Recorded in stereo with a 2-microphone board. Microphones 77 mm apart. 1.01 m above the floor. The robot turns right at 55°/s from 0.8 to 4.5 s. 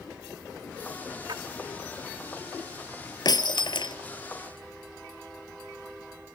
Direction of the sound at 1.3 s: 80° right.